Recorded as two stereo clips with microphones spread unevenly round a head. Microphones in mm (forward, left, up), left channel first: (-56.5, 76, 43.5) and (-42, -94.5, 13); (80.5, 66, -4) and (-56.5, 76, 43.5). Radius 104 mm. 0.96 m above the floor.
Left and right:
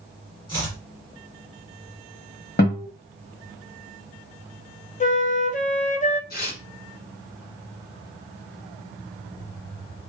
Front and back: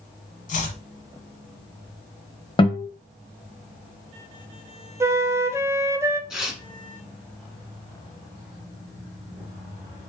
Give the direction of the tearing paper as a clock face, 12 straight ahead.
9 o'clock.